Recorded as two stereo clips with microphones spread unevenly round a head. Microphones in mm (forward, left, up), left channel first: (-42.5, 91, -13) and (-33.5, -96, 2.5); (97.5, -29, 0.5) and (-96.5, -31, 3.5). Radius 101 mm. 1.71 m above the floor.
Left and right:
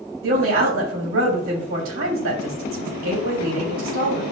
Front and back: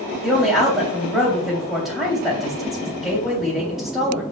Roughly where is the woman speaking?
Right.